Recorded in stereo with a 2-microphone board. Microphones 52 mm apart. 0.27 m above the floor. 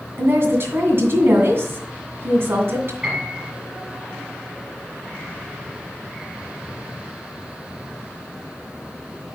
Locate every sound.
0.2 s a woman speaking: 50° right (ahead or behind), 2 m
3.0 s a piano: 20° right (ahead or behind), 4.5 m